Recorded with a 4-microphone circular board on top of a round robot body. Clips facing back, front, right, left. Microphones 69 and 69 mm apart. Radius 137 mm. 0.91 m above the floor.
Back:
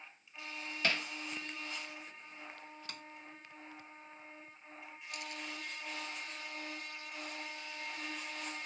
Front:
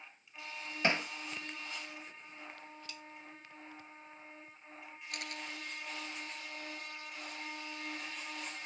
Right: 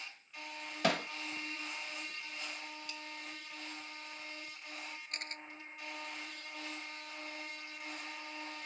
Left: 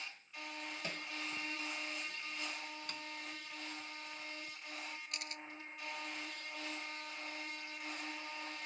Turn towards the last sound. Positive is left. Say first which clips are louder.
# front 1 dB, right 2 dB
turn(degrees=-35)